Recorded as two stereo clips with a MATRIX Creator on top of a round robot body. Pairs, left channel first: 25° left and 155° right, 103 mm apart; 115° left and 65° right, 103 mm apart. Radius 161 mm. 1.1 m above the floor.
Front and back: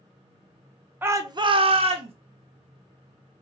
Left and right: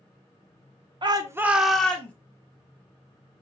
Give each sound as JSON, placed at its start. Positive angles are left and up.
{"t": 1.0, "sound": "a shout", "azimuth_deg": -90, "distance_m": 0.9}